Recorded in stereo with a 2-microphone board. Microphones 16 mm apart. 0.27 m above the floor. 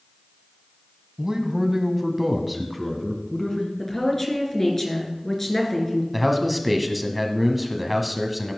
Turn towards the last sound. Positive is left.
turn(degrees=5)  # may be behind; listen again after turning